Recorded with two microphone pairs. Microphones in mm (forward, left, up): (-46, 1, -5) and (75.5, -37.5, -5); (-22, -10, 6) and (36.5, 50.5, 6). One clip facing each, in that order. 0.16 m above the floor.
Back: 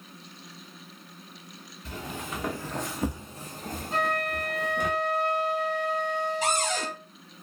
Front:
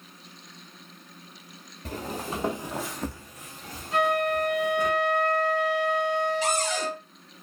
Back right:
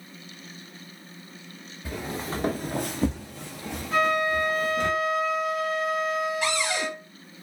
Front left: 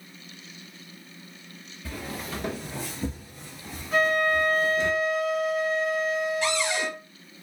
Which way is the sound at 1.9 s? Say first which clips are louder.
Front 4 dB, back right 3 dB; 60° right.